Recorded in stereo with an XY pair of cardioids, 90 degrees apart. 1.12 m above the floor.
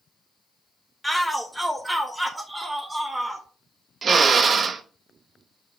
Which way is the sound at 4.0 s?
50° right.